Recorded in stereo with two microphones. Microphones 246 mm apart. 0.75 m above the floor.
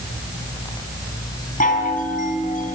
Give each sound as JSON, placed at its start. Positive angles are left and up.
{"t": 1.6, "sound": "a chime", "side_deg": 30, "distance_m": 4.5}